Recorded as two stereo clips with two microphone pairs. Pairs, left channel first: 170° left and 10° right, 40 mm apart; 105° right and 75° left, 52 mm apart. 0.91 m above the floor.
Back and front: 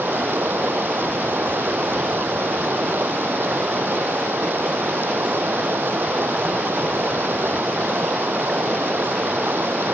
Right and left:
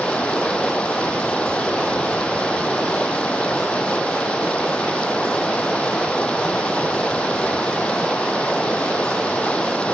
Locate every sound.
0.0 s running water: 35° right